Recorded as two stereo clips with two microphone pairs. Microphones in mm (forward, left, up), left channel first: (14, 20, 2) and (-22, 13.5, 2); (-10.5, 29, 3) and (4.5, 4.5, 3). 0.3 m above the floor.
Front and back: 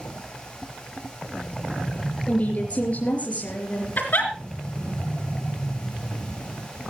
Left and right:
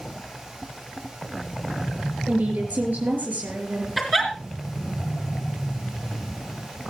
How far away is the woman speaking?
About 5 m.